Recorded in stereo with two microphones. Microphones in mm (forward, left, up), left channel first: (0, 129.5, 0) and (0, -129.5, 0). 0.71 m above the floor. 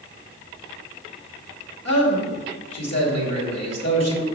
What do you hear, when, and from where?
1.9 s a man speaking: 75° left (ahead or behind), 2.5 m